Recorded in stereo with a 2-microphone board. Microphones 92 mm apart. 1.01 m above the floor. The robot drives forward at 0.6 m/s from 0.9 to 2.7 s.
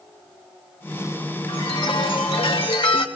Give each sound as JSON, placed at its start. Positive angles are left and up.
{"t": 1.5, "sound": "a chime", "side_deg": 65, "distance_m": 1.4}